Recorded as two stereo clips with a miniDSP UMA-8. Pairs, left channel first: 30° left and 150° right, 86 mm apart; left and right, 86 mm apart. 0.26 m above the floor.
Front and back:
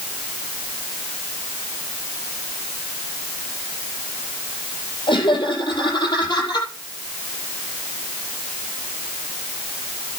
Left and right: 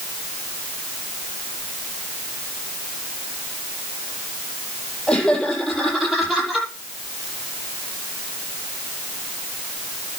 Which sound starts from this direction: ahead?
Laughter, at 5.1 s.